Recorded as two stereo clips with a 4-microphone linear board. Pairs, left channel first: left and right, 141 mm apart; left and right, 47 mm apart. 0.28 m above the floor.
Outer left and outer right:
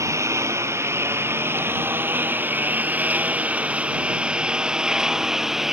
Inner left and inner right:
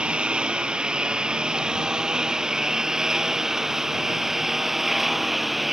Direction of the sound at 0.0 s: 20° right (ahead or behind).